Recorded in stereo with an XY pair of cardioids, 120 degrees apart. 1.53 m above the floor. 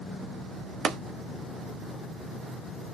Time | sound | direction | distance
0.8 | tapping | 55° right | 0.5 m